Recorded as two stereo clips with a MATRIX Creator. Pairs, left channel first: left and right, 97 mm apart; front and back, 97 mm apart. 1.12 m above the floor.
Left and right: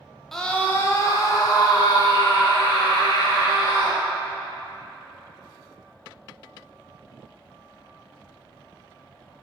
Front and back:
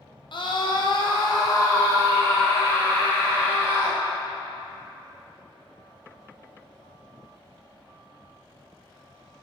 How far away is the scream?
About 0.9 m.